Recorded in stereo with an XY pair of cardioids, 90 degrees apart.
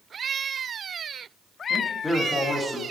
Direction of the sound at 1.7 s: 15° left.